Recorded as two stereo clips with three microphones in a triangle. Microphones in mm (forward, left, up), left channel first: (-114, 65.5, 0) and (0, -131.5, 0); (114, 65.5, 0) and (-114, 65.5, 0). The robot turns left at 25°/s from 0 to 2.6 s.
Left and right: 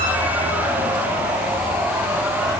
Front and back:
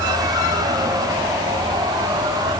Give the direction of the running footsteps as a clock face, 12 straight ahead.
I don't hear running footsteps.